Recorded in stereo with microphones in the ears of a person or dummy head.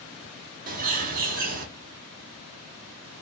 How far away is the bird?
About 0.8 m.